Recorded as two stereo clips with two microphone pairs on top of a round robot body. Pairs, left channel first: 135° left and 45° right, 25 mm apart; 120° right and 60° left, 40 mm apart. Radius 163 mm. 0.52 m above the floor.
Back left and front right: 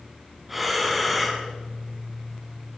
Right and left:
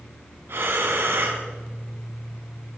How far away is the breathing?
About 2 m.